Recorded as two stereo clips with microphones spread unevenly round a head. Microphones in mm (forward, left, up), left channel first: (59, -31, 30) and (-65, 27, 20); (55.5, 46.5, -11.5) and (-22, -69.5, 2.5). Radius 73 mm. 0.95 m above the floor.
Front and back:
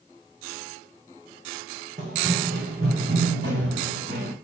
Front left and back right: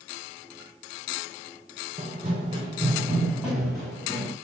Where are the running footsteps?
165° right, 2 m; by 4.3 s 135° left, 2.5 m.